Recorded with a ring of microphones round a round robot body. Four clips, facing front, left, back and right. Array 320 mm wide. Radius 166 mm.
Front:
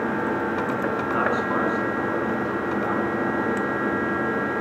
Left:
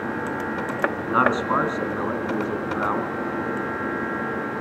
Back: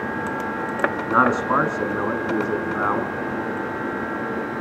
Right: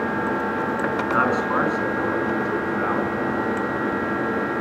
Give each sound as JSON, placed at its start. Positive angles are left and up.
{"t": 1.1, "sound": "a man speaking", "azimuth_deg": 160, "distance_m": 4.5}